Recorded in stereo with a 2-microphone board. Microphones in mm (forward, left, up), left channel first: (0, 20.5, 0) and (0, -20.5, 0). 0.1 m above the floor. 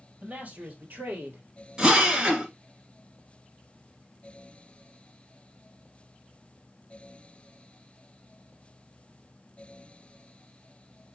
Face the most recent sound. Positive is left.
turn(degrees=-20)  # may be behind; listen again after turning